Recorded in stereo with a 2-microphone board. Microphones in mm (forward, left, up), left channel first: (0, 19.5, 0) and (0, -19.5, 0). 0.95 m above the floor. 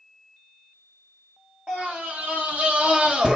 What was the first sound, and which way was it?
A scream, 40° right (ahead or behind).